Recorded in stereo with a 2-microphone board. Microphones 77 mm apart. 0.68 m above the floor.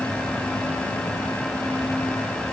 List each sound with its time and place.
Only background noise.